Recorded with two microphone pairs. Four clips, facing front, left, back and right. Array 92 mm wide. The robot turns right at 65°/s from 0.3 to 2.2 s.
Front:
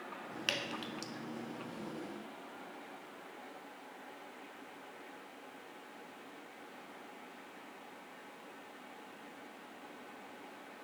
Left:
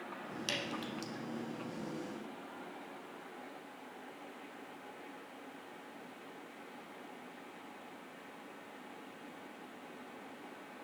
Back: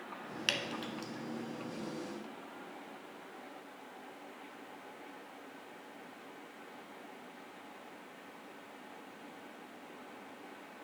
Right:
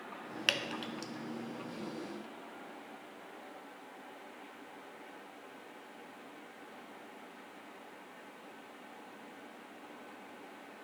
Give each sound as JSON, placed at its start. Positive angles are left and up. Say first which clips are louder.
{"t": 0.5, "sound": "dripping", "louder": "right 3 dB, back 2 dB", "azimuth_deg": -100, "distance_m": 0.6}